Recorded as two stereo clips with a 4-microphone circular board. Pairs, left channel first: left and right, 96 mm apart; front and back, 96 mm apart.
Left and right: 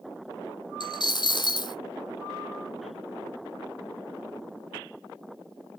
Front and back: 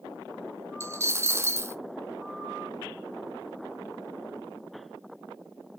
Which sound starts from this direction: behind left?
A dropped coin, at 0.8 s.